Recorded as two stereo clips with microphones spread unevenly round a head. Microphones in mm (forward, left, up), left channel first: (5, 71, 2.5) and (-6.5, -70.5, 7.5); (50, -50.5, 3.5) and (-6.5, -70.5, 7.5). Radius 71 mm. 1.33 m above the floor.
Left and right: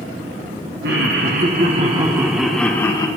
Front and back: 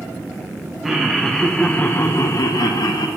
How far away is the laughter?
About 1.4 m.